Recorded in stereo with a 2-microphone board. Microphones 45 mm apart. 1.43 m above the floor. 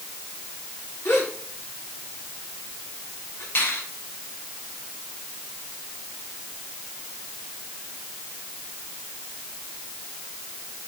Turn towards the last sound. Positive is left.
turn(degrees=60)  # may be behind; listen again after turning